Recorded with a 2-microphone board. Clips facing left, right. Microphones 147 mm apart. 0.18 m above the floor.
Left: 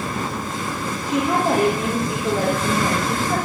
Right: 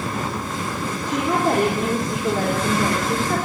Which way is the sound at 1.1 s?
10° left (ahead or behind).